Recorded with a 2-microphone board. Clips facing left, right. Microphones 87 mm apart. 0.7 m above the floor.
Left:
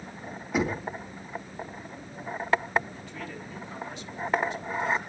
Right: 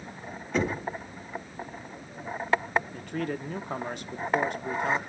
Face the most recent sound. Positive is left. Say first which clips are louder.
# right 7 dB
turn(degrees=-55)  # may be behind; listen again after turning